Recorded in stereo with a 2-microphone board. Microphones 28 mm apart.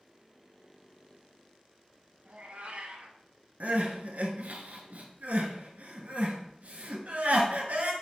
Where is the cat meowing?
60° right (ahead or behind), 0.6 m.